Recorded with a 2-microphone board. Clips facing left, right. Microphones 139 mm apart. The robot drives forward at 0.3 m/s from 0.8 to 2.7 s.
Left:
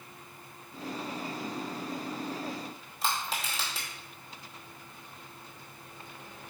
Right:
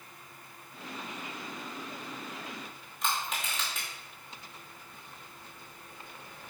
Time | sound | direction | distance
3.0 | crushing | 35° left (ahead or behind) | 1.1 m